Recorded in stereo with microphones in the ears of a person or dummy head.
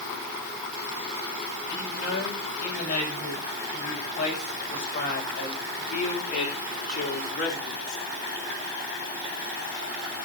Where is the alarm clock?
I don't hear an alarm clock.